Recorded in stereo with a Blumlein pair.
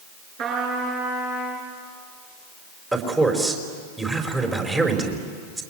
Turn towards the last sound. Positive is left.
turn(degrees=-10)